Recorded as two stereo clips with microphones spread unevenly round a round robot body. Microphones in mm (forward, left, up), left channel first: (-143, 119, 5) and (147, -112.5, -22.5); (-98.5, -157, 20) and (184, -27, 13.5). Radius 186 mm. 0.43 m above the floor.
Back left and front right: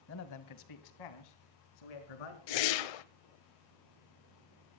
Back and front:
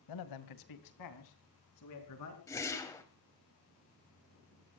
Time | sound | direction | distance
0.1 | a man speaking | 165° right | 2 m
2.5 | a whoosh | 125° left | 1.1 m